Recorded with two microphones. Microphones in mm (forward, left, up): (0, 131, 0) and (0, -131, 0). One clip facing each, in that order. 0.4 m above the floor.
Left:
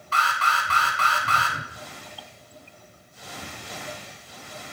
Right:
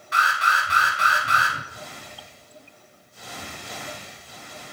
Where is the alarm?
15° right (ahead or behind), 2.5 m.